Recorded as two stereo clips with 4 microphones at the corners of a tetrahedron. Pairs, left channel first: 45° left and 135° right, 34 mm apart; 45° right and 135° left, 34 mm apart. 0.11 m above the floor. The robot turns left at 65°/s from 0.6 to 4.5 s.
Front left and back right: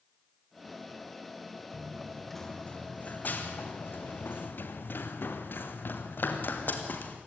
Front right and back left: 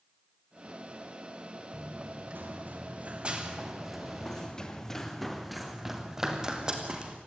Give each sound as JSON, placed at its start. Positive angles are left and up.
{"t": 1.7, "sound": "running footsteps", "azimuth_deg": 160, "distance_m": 5.0}